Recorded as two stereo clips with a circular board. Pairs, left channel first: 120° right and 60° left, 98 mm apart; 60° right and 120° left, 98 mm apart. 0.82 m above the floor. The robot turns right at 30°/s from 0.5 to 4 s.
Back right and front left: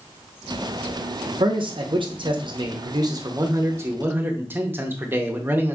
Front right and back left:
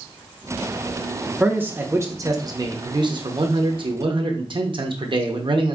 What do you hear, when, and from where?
1.3 s a man speaking: 45° left, 0.7 m; by 5.8 s 125° left, 0.7 m